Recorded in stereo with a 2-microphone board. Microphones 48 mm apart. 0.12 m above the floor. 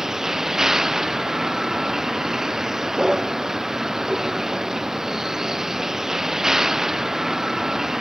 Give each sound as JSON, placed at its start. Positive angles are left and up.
{"t": 0.0, "sound": "a vehicle", "side_deg": -10}